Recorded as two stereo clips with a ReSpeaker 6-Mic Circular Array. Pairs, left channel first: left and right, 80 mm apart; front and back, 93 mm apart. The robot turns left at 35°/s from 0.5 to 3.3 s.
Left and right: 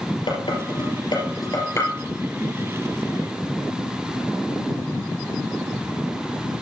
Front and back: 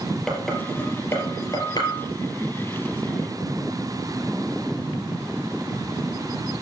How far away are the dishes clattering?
About 3.5 m.